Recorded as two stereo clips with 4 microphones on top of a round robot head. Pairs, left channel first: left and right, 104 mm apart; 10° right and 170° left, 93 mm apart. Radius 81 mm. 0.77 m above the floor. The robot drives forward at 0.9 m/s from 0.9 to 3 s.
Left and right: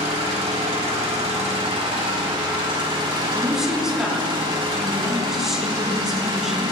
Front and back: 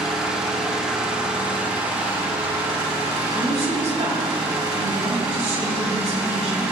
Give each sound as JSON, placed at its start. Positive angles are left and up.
{"t": 0.0, "sound": "an engine running", "azimuth_deg": -105, "distance_m": 3.5}
{"t": 3.2, "sound": "a woman speaking", "azimuth_deg": -175, "distance_m": 5.5}